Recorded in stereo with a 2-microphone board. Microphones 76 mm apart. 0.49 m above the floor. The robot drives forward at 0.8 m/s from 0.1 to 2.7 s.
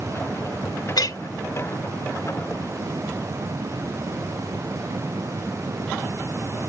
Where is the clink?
65° left (ahead or behind), 0.8 m; by 1.2 s 55° left (ahead or behind), 0.8 m.